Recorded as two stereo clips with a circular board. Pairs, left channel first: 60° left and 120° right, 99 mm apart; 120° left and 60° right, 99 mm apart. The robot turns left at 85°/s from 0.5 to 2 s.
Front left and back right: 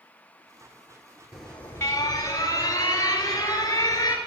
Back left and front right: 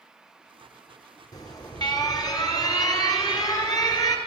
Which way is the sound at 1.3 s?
155° left.